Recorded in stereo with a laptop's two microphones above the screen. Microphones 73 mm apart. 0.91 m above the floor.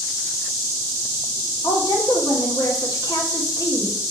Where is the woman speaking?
65° left (ahead or behind), 2.5 m.